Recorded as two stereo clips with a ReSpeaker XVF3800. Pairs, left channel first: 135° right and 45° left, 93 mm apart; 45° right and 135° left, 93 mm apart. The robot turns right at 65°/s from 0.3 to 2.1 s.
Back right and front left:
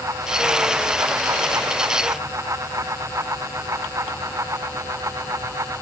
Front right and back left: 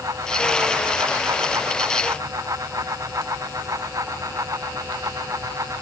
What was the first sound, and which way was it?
Only background noise.